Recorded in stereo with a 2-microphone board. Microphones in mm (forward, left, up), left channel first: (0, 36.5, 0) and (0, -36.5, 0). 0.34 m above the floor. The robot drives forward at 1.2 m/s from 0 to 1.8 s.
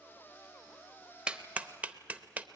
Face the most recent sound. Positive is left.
turn(degrees=-20)  # may be behind; listen again after turning